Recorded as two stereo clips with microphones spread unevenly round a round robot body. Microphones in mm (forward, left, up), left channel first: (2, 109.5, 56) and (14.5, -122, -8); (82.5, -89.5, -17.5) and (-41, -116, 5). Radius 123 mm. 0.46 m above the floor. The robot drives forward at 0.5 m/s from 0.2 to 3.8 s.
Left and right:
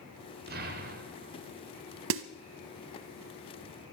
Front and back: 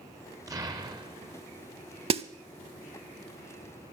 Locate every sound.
0.5 s an explosion: 100° right, 1.8 m; by 1.5 s 120° right, 2.0 m
2.1 s a snare drum: 125° right, 0.8 m; by 2.2 s 130° right, 0.9 m